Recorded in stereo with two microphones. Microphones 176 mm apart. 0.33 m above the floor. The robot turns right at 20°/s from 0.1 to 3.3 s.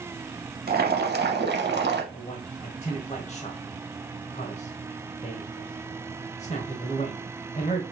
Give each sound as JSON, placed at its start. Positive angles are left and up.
{"t": 0.7, "sound": "boiling", "side_deg": -60, "distance_m": 0.7}
{"t": 2.1, "sound": "a man speaking", "side_deg": 35, "distance_m": 1.1}